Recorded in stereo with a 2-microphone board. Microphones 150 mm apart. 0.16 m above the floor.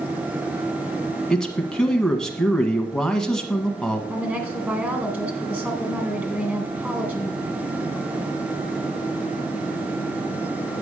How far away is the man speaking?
About 1.1 m.